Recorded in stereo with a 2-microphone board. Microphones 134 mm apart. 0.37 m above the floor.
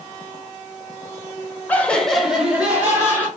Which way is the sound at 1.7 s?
15° left (ahead or behind).